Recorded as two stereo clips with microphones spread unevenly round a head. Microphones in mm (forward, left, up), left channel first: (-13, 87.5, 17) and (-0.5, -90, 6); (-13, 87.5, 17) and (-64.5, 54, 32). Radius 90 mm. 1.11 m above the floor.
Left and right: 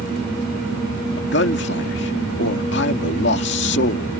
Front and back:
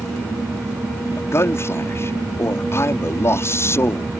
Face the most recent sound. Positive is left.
turn(degrees=70)